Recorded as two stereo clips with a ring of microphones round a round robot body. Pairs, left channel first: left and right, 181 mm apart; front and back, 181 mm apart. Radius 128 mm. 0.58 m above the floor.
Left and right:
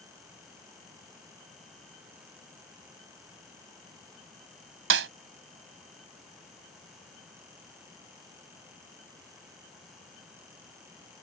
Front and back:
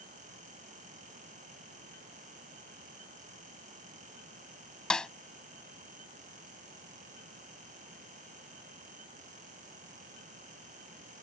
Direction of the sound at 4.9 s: 85° right.